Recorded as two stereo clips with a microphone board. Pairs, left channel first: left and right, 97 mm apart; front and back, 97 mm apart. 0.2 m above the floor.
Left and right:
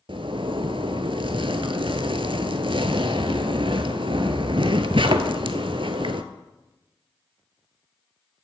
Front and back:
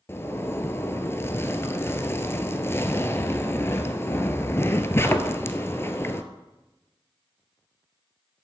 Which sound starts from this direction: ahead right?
A zipper, at 0.1 s.